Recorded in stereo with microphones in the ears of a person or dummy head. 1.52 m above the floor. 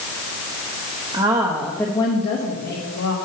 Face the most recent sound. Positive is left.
turn(degrees=60)  # may be behind; listen again after turning